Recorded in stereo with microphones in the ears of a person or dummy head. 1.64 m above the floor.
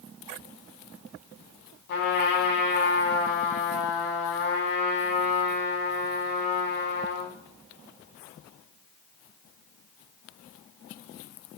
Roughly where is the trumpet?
Left.